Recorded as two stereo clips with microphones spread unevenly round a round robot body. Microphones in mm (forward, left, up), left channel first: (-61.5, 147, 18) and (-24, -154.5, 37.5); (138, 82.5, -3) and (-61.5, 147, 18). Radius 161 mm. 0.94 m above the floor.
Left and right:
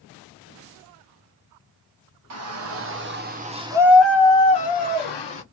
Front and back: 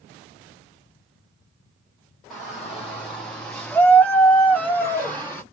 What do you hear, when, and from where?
2.3 s a shout: 105° right, 1.0 m; by 5.4 s 60° left, 1.0 m